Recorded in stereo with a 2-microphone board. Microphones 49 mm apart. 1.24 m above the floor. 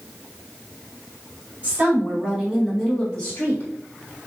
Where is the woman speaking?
30° right (ahead or behind), 1.6 m; by 3.7 s 45° left (ahead or behind), 1.1 m.